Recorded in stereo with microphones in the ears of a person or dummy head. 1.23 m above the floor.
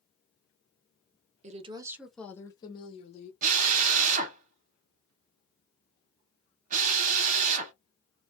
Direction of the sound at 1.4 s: 35° right (ahead or behind).